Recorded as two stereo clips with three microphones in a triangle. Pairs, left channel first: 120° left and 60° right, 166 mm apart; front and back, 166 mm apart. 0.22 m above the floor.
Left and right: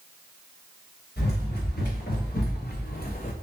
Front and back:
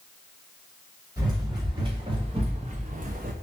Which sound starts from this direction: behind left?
Running footsteps, at 1.2 s.